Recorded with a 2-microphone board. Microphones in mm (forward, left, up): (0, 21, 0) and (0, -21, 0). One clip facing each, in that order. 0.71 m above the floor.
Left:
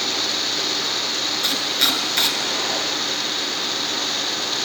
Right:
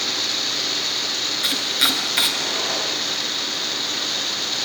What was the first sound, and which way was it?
Chopping, 10° right (ahead or behind).